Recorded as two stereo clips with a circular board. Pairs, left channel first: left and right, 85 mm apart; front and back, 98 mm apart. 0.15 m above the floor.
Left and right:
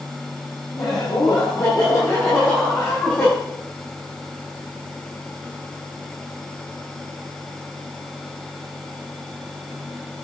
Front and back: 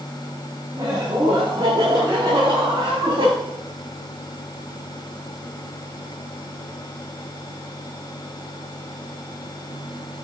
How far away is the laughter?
About 6 m.